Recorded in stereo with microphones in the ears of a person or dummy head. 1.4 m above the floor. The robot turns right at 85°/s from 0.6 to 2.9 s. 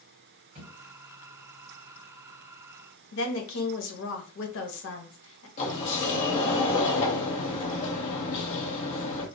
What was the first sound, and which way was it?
A thud, 40° right (ahead or behind).